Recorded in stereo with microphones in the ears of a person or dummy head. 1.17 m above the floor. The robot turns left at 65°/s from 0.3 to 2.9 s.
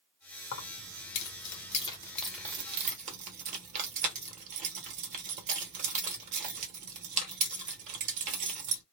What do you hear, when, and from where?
0.5 s keys jangling: 65° left (ahead or behind), 1.1 m; by 8.8 s 40° right (ahead or behind), 1.1 m